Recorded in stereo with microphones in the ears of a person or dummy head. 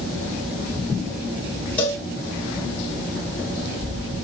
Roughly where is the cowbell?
Centre.